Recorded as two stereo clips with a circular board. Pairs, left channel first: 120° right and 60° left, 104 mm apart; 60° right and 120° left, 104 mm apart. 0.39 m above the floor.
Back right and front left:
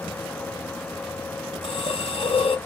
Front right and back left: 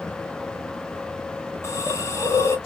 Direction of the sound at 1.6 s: 120° right.